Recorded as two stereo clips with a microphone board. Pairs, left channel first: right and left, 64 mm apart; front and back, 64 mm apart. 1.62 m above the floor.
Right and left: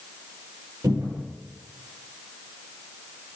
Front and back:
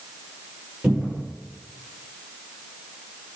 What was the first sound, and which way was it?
A cupboard door, 120° left.